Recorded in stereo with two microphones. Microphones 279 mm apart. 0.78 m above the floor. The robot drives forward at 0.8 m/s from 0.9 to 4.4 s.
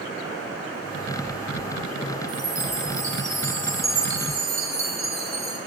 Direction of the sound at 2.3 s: 70° left (ahead or behind).